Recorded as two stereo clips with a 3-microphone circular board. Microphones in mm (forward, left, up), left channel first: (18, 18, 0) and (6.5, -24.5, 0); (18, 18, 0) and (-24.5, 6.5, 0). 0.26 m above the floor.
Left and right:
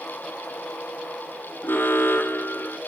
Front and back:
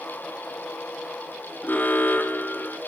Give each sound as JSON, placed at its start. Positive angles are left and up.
{"t": 1.6, "sound": "an alarm", "azimuth_deg": 55, "distance_m": 2.5}